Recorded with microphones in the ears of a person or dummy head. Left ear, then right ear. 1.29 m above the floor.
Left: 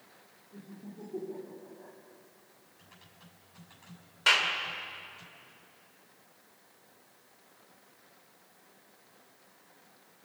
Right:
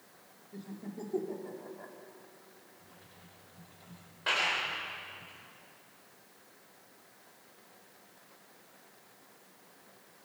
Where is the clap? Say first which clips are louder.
Left 5 dB; 75° left (ahead or behind), 3.5 m.